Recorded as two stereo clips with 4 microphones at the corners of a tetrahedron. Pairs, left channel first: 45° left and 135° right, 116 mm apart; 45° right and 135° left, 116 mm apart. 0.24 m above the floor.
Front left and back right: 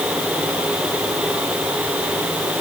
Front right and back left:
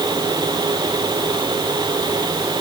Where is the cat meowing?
No cat meowing in this recording.